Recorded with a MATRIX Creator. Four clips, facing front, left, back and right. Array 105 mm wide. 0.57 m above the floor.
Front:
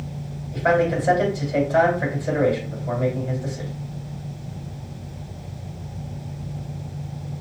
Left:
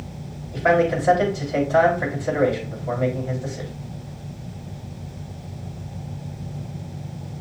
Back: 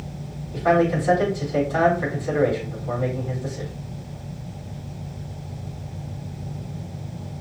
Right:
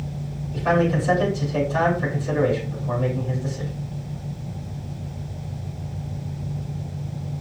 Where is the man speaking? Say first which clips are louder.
Left 2 dB, back 1 dB; 55° left, 3 m.